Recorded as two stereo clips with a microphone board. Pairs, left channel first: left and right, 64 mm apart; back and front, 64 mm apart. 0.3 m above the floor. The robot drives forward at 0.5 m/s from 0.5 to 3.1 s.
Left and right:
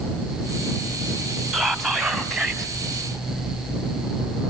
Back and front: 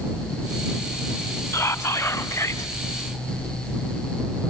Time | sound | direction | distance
1.5 | whispering | 175° left | 1.9 m